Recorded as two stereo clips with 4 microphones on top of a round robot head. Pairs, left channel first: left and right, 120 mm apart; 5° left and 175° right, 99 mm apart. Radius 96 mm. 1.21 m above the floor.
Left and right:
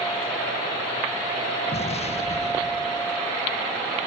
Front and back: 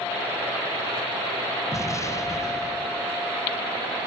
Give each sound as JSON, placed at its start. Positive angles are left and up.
{"t": 1.7, "sound": "an explosion", "azimuth_deg": 60, "distance_m": 1.0}